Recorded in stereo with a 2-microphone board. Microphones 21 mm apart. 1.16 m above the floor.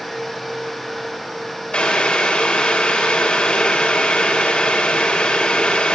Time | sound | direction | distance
1.7 | boiling | 80° left | 2.5 m